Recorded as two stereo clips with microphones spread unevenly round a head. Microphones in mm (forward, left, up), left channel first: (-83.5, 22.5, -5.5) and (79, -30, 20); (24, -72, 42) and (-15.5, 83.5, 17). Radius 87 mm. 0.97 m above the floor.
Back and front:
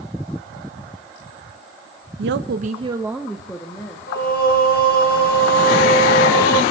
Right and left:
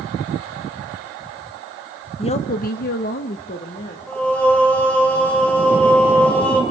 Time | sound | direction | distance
2.2 | a woman speaking | 20° right | 1.1 m
4.1 | singing | 160° right | 2 m